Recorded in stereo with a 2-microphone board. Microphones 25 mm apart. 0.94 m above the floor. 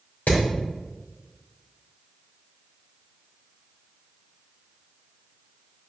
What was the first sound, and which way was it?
Hammering, 80° left.